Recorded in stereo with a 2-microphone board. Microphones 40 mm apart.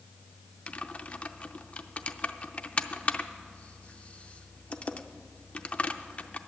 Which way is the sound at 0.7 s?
35° left (ahead or behind).